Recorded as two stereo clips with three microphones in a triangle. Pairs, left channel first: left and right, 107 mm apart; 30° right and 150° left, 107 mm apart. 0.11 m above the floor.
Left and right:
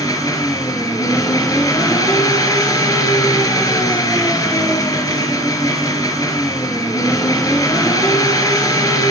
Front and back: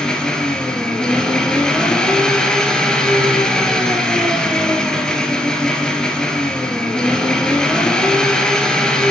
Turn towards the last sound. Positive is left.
turn(degrees=50)